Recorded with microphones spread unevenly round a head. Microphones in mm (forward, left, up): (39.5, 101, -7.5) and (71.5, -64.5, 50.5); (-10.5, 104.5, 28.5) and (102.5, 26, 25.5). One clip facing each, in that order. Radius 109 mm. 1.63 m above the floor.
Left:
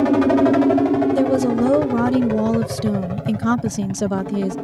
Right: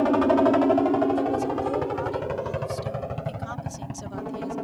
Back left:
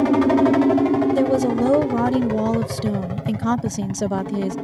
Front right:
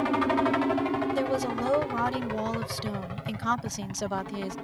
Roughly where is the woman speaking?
Left.